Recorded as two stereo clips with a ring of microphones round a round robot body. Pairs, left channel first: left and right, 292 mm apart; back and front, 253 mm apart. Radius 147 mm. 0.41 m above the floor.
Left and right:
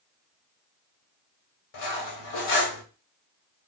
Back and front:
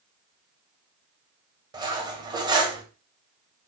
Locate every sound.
1.7 s cutlery clinking: 75° left, 1.1 m